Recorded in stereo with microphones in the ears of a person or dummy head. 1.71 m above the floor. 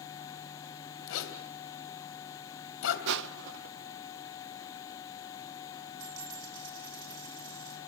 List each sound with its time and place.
1.1 s a zipper: 75° left (ahead or behind), 2.5 m
3.1 s crushing: 60° right (ahead or behind), 0.6 m
6.0 s a dropped coin: 80° right, 6.5 m